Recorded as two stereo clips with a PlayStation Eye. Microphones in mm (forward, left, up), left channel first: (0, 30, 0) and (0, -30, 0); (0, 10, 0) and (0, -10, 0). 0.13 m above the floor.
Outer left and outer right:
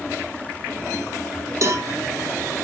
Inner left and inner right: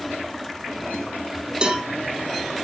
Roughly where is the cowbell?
Right.